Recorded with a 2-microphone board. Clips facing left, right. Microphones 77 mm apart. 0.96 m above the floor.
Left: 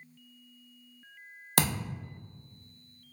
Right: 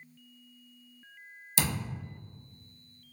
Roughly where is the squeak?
I don't hear a squeak.